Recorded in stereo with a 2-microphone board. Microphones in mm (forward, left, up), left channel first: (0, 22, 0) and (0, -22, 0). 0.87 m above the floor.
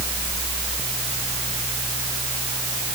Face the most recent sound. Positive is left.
No sound to turn to.